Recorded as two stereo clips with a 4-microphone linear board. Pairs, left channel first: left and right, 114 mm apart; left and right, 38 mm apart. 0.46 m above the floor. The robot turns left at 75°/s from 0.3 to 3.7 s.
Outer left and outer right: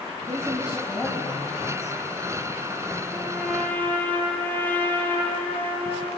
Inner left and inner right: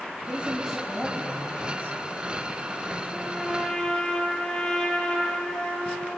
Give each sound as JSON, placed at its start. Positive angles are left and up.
{"t": 0.3, "sound": "a woman speaking", "azimuth_deg": -145, "distance_m": 3.5}
{"t": 3.1, "sound": "a trumpet", "azimuth_deg": -150, "distance_m": 7.0}